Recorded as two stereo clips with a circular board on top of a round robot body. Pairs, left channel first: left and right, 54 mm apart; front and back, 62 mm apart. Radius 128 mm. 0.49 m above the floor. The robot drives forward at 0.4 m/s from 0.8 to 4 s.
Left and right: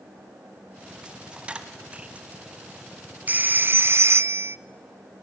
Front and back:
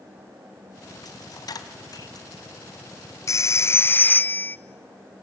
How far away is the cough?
I don't hear a cough.